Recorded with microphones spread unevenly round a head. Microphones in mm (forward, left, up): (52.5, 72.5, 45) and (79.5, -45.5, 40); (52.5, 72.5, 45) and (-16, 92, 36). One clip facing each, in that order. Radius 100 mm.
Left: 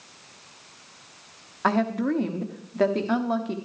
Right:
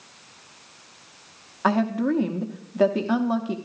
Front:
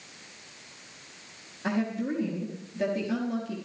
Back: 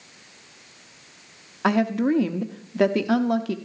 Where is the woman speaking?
160° right, 0.8 m.